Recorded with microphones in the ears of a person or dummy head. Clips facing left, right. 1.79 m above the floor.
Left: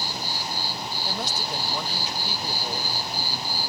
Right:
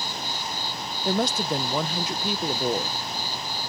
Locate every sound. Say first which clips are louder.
0.0 s an insect: even; 5° left (ahead or behind)
1.1 s a woman speaking: right 10 dB; 50° right (ahead or behind)